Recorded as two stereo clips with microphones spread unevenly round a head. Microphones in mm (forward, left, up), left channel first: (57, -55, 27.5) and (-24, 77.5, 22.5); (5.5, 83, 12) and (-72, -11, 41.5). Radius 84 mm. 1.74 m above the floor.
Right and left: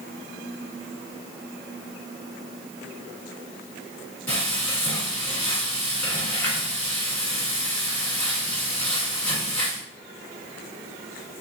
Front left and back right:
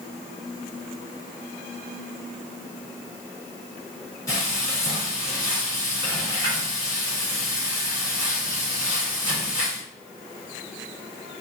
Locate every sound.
4.3 s frying: 15° right, 1.4 m